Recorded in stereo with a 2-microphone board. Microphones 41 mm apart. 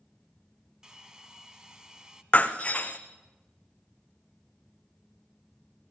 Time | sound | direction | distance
0.8 | a hair dryer | 20° right (ahead or behind) | 1.2 m
2.3 | breaking glass | 30° left (ahead or behind) | 1.4 m